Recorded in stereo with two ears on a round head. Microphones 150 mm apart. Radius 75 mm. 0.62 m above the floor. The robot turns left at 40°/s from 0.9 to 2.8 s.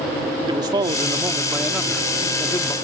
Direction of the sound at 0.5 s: 140° right.